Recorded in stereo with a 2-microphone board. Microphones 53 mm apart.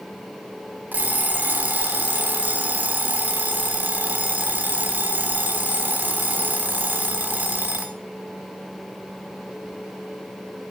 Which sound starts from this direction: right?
An alarm clock, at 0.9 s.